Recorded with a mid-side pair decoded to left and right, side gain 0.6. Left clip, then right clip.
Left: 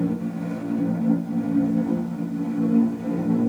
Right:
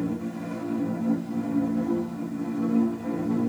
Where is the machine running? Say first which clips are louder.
Left 3 dB; 15° left, 1.1 m.